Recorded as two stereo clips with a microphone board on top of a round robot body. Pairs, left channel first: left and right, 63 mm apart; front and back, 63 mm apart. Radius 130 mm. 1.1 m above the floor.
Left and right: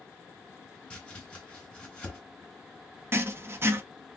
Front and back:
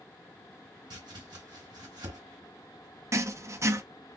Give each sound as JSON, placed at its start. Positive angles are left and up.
{"t": 0.9, "sound": "chopping", "azimuth_deg": 165, "distance_m": 1.0}
{"t": 3.1, "sound": "writing", "azimuth_deg": -140, "distance_m": 0.7}